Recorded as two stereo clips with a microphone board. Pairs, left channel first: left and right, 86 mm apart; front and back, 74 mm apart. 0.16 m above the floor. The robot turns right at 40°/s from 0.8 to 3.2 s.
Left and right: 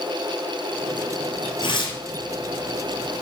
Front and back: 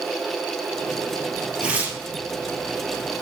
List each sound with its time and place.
1.6 s tearing paper: 105° left, 1.5 m; by 2.0 s 120° left, 1.5 m